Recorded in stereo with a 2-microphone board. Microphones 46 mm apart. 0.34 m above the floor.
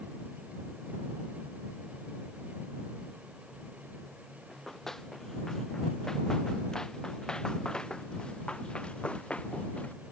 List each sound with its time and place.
4.5 s running footsteps: 10° left (ahead or behind); by 10.0 s 30° left (ahead or behind)